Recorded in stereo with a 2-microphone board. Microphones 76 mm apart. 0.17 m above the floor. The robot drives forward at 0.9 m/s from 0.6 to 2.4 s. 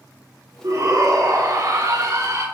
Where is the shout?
45° right (ahead or behind), 2.5 m.